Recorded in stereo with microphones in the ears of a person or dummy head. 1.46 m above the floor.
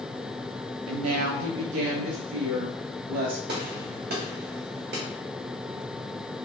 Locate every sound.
0.9 s a woman speaking: 70° right (ahead or behind), 0.6 m
3.5 s a gunshot: 45° right (ahead or behind), 0.9 m